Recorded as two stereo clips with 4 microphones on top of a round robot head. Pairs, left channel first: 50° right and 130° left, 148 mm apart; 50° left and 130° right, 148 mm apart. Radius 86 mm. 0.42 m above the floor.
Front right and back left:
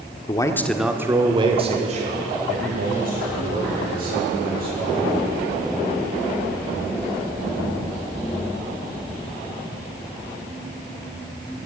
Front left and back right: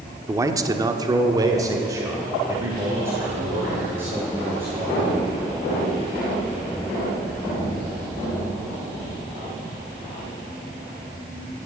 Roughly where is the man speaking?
Right.